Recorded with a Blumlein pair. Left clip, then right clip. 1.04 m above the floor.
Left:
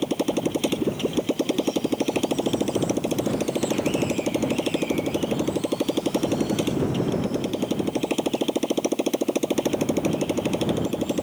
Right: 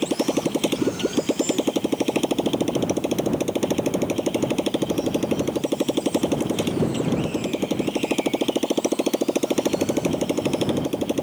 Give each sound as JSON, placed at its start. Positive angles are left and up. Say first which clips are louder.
{"t": 0.0, "sound": "a motorcycle", "louder": "right 2 dB", "azimuth_deg": -5}